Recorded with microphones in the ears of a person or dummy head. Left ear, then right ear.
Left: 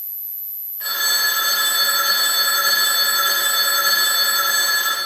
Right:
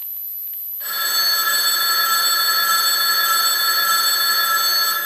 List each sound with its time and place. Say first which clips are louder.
0.8 s a phone ringing: left 1 dB; 5° left (ahead or behind), 1.4 m